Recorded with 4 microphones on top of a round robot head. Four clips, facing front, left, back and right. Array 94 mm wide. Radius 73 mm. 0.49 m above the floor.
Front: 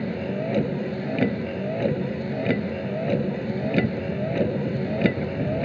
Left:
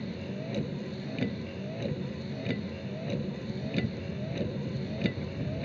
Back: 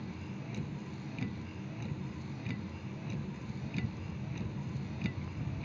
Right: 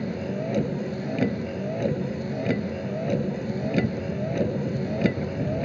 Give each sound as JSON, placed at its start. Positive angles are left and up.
{"t": 0.0, "sound": "a vehicle", "azimuth_deg": -25}